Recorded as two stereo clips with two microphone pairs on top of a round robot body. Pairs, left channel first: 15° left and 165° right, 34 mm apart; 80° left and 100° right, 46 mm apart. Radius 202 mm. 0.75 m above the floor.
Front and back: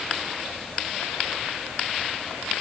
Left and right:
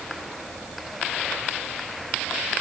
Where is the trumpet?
I don't hear a trumpet.